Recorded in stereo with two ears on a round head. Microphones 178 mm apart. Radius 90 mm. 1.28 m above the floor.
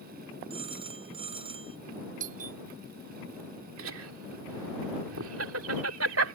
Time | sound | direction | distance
0.5 | a phone ringing | 30° right (ahead or behind) | ?
2.2 | a doorbell | 45° right (ahead or behind) | ?
3.8 | laughter | 85° right | ?